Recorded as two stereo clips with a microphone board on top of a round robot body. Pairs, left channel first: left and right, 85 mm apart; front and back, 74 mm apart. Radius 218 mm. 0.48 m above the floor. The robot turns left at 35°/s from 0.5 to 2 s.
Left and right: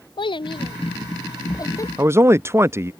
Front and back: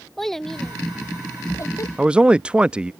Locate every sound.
0.2 s a child speaking: 85° left; by 1.9 s 40° left
2.0 s a man speaking: 115° right